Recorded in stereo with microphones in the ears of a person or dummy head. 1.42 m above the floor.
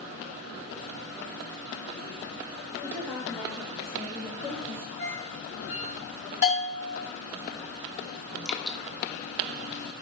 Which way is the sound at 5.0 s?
45° left (ahead or behind).